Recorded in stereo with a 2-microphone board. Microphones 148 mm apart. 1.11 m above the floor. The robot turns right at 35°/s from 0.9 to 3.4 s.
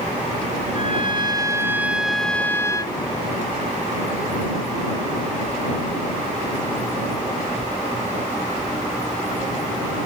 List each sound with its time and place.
0.7 s a trumpet: 45° right; by 3.0 s 30° left